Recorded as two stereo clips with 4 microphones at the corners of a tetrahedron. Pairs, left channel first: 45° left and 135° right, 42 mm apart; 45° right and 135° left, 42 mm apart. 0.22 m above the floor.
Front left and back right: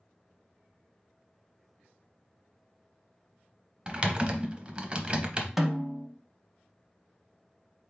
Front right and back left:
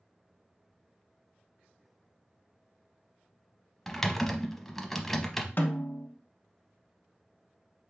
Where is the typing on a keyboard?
120° right, 0.7 m.